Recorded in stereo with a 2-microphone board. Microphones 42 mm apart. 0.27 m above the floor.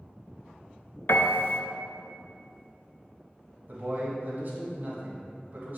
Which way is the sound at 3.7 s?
55° right (ahead or behind).